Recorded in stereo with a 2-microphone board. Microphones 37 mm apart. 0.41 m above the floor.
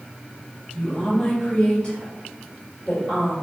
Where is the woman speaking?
15° left (ahead or behind), 1.6 m; by 3.3 s 30° left (ahead or behind), 1.7 m.